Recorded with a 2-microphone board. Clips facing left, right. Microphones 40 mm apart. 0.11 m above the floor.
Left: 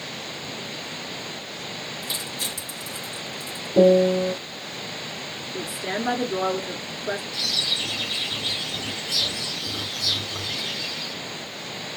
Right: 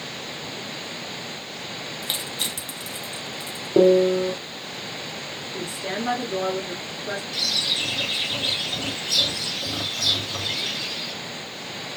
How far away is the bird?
About 2 m.